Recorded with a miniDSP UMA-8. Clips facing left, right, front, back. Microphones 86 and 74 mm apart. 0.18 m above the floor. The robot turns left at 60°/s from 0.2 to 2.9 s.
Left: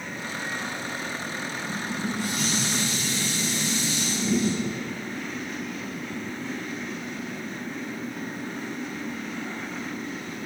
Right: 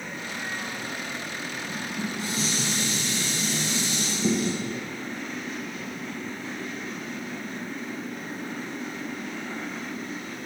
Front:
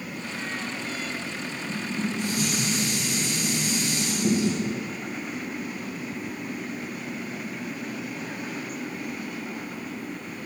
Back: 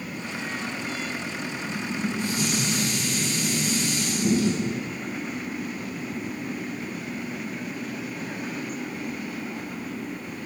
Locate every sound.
1.7 s dishes clattering: 5° left, 3 m; by 4.6 s 65° right, 3 m